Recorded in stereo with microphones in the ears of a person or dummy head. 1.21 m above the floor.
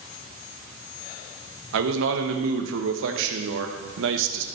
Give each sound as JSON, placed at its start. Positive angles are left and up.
{"t": 1.7, "sound": "a man speaking", "side_deg": -70, "distance_m": 1.3}